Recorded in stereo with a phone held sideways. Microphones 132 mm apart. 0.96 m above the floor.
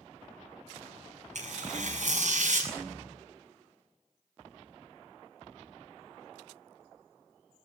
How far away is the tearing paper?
About 7 m.